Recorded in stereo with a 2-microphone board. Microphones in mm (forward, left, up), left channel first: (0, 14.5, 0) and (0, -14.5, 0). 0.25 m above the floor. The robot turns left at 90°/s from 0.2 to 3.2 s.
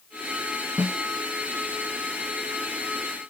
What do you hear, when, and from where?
0.8 s a snare drum: 60° right (ahead or behind), 2 m; by 1.0 s 45° right (ahead or behind), 2 m